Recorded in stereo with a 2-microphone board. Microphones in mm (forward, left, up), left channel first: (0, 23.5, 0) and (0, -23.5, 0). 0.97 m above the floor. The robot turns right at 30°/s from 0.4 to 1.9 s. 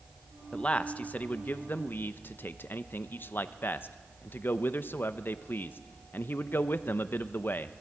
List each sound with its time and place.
0.5 s a man speaking: 30° left, 0.6 m; by 7.8 s 70° left, 0.6 m